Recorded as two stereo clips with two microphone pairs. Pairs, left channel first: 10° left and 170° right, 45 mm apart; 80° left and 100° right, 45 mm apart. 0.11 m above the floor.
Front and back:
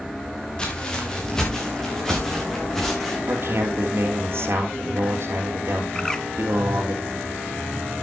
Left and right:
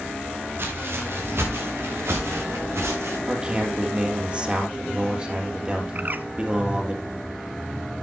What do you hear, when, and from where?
0.6 s footsteps: 65° right, 4.5 m; by 3.2 s 80° right, 8 m
3.3 s a man speaking: 165° right, 3 m
6.0 s a bird: 65° right, 0.6 m